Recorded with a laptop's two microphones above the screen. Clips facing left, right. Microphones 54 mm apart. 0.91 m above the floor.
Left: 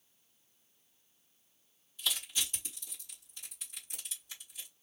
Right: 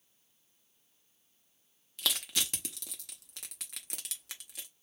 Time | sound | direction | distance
2.0 | crushing | 80° right | 1.1 m